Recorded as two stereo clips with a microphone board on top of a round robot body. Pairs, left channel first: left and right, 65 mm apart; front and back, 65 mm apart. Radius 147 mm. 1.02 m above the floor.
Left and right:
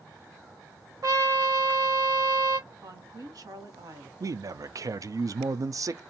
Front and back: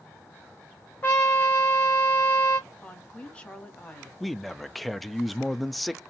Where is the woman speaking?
75° right, 1.2 m.